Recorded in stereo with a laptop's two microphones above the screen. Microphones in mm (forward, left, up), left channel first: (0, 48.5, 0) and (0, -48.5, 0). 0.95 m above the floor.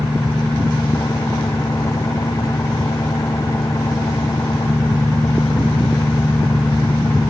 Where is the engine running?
35° left (ahead or behind).